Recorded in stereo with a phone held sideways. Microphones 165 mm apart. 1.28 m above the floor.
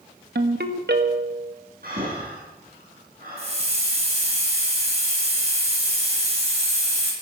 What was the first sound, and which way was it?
A ringtone, 75° right (ahead or behind).